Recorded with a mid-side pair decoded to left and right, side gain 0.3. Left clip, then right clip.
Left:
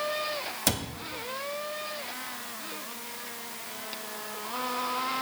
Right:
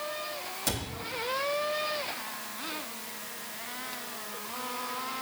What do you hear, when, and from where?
0.7 s a cupboard door: 65° left, 1.6 m